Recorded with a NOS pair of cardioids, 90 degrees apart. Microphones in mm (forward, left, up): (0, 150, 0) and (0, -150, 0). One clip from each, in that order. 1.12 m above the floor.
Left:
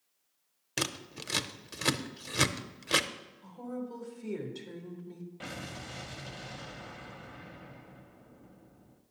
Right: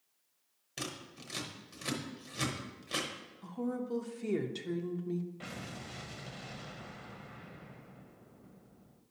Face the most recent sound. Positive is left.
turn(degrees=15)